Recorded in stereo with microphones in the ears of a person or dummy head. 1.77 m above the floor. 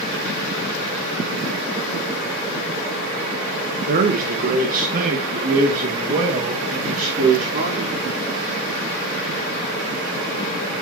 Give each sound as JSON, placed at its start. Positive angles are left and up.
{"t": 3.9, "sound": "a man speaking", "side_deg": -50, "distance_m": 1.4}